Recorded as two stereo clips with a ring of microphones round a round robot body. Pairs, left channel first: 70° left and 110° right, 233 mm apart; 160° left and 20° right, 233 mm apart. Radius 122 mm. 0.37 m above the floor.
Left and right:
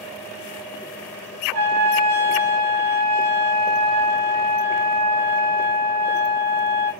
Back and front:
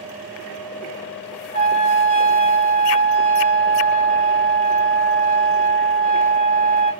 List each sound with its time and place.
1.5 s a trumpet: 140° right, 3.5 m